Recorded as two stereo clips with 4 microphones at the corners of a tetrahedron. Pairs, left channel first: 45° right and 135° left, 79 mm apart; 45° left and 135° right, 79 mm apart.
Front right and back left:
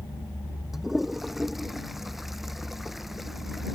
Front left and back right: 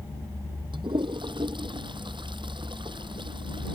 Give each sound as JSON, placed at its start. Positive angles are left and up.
{"t": 0.7, "sound": "a toilet flushing", "azimuth_deg": -135}